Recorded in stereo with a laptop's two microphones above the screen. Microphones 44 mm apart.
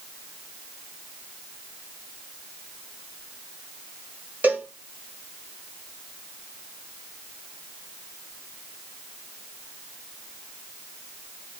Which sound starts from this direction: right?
A cowbell, at 4.4 s.